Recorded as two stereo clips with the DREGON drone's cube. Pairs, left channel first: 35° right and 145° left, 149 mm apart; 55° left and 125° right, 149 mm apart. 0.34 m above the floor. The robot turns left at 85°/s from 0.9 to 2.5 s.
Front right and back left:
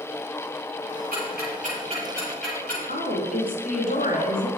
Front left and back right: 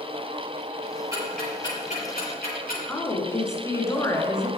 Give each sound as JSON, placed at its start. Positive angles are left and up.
{"t": 1.1, "sound": "ticking", "azimuth_deg": 165, "distance_m": 7.5}
{"t": 2.9, "sound": "a woman speaking", "azimuth_deg": -15, "distance_m": 3.5}